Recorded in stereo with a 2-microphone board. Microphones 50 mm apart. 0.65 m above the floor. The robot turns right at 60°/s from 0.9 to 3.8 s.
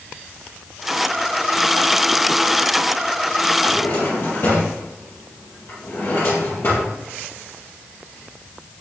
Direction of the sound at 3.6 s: 60° left (ahead or behind).